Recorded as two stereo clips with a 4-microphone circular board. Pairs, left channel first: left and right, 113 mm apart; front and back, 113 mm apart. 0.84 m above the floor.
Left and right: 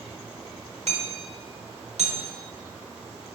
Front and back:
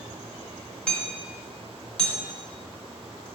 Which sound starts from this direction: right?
Hammering, at 0.9 s.